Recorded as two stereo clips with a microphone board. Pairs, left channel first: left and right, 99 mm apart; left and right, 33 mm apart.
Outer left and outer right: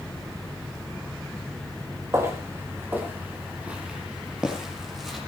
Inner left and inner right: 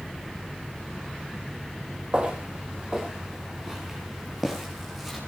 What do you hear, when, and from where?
2.1 s footsteps: 30° right (ahead or behind), 6.5 m; by 5.2 s centre (ahead or behind), 8 m